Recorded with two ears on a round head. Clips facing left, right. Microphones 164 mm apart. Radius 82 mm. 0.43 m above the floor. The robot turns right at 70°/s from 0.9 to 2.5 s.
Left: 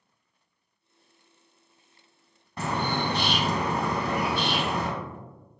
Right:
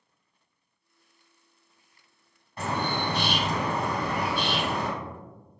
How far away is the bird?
About 0.7 m.